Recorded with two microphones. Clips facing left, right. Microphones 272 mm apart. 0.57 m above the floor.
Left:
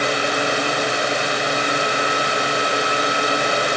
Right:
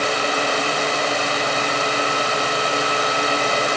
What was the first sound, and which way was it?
Only background noise.